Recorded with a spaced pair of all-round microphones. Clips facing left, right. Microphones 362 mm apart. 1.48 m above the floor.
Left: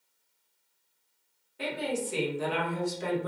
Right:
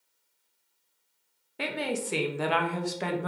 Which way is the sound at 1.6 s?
80° right.